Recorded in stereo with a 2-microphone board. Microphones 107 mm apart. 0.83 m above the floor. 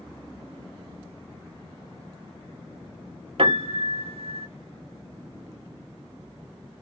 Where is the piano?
60° right (ahead or behind), 0.7 m.